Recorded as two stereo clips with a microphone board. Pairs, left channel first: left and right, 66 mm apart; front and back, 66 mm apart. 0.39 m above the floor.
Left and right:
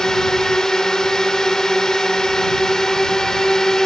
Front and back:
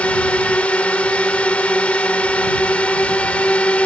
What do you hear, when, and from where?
0.0 s a drone: 25° left